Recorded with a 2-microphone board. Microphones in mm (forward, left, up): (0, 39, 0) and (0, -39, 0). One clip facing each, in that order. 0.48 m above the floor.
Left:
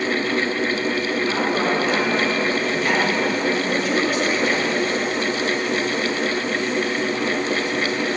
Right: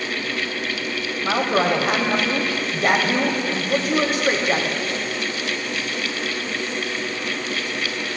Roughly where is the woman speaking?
Right.